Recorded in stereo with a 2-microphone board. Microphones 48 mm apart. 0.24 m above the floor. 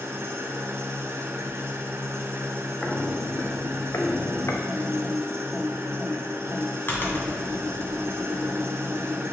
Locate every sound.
0.0 s an engine running: 65° right (ahead or behind), 0.9 m
2.8 s footsteps: 25° left (ahead or behind), 1.4 m; by 4.6 s 85° left, 1.4 m
4.7 s typing on a keyboard: 45° left (ahead or behind), 2 m